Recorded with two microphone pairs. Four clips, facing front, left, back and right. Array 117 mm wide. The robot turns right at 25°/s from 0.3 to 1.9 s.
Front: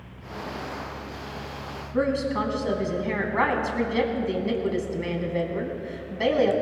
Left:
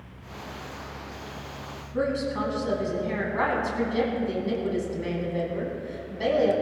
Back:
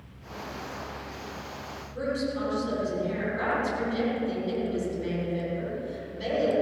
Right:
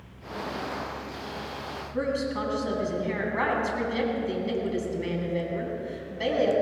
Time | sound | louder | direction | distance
1.9 | a woman speaking | left 2 dB, front 5 dB | straight ahead | 3 m